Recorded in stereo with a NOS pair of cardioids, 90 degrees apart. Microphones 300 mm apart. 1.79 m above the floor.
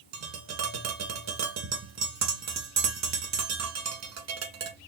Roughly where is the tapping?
Ahead right.